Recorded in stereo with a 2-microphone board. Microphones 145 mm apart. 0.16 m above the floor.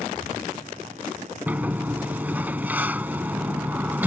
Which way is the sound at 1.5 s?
10° right (ahead or behind).